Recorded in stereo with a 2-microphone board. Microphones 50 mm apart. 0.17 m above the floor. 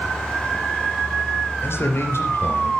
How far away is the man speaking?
About 3.5 m.